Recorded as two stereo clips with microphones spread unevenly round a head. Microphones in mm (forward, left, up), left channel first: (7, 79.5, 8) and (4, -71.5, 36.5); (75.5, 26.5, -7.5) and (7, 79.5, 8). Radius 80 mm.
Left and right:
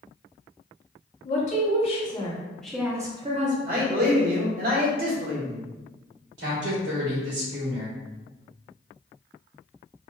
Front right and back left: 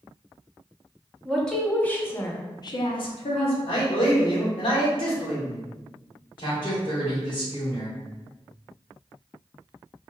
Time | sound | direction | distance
1.2 | a woman speaking | 50° left | 1.0 m
3.7 | a man speaking | 55° right | 1.0 m
6.4 | a woman speaking | 90° right | 1.2 m